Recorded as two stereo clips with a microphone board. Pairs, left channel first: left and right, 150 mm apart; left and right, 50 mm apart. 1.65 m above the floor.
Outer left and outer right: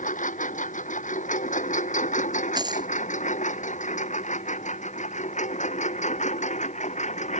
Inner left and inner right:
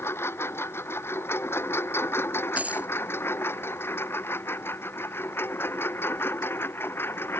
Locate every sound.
0.0 s a lawn mower: 55° left (ahead or behind); by 7.4 s 50° left (ahead or behind)
2.6 s a dropped coin: 30° right (ahead or behind)